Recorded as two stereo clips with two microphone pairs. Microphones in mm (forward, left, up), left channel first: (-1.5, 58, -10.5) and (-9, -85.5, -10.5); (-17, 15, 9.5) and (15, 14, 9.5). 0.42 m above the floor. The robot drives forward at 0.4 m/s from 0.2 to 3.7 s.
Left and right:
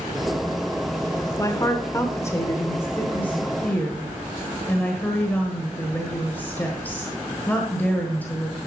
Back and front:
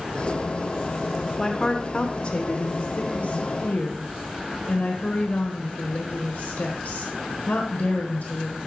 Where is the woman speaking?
115° left, 0.8 m; by 8.6 s 165° left, 1.4 m.